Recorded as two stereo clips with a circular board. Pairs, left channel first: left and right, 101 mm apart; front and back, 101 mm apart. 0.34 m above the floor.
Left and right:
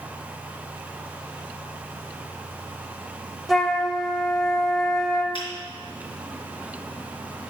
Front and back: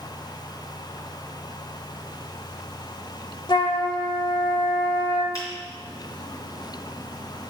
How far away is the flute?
About 0.8 m.